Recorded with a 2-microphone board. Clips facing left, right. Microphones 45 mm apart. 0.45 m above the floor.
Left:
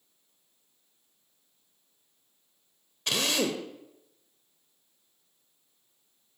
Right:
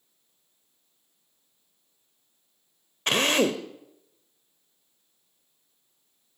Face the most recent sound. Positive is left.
turn(degrees=-45)  # may be behind; listen again after turning